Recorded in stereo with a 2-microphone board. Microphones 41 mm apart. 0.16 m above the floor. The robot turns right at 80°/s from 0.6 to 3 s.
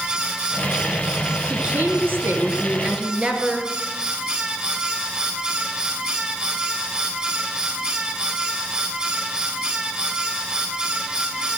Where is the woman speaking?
155° right, 2.5 m; by 3.7 s 35° right, 2.5 m.